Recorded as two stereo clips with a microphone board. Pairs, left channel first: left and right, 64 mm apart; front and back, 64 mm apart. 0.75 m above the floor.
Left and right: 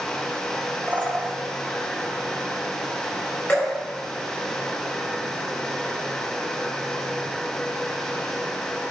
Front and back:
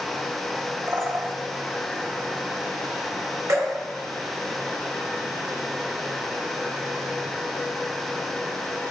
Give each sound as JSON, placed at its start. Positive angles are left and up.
{"t": 0.9, "sound": "a bird", "azimuth_deg": -145, "distance_m": 0.8}
{"t": 3.5, "sound": "dripping", "azimuth_deg": 150, "distance_m": 3.5}